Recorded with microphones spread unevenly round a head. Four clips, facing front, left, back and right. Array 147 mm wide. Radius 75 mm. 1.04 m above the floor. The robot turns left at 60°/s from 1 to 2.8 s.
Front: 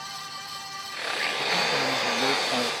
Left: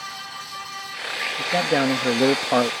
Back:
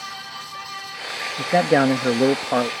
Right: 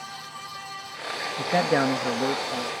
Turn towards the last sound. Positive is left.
turn(degrees=110)